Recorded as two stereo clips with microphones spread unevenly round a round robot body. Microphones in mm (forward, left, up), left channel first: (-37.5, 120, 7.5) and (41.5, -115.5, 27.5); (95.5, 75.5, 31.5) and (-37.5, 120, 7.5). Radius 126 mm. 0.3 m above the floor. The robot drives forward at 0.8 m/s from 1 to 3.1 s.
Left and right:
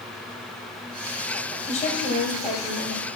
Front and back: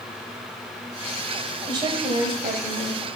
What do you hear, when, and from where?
1.7 s a woman speaking: 145° left, 1.7 m; by 3.0 s 165° left, 2.5 m